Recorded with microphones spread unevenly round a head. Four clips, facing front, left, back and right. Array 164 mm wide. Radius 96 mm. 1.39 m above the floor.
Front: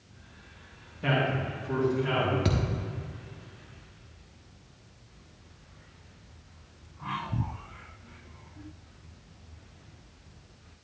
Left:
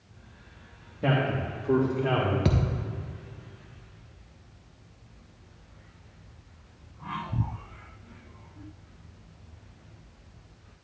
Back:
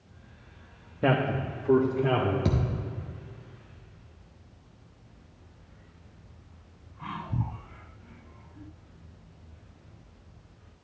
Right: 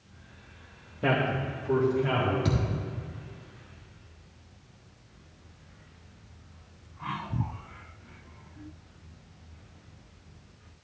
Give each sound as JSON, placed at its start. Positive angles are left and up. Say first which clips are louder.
{"t": 1.0, "sound": "a man speaking", "louder": "even, back 3 dB", "azimuth_deg": 175, "distance_m": 1.3}
{"t": 2.5, "sound": "a thud", "louder": "left 2 dB, back 1 dB", "azimuth_deg": 100, "distance_m": 1.0}